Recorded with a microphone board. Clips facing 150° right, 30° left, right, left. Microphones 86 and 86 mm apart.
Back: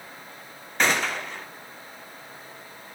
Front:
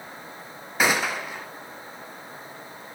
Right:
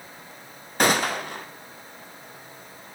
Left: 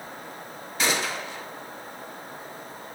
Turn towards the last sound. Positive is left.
turn(degrees=-55)